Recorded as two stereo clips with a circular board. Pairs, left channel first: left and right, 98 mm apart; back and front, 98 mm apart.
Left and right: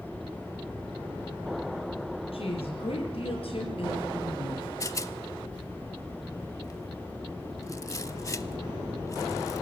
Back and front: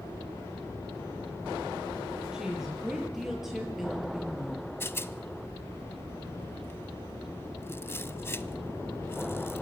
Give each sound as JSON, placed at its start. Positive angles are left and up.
{"t": 2.3, "sound": "a woman speaking", "azimuth_deg": 85, "distance_m": 6.5}
{"t": 4.8, "sound": "a rattle", "azimuth_deg": 130, "distance_m": 0.7}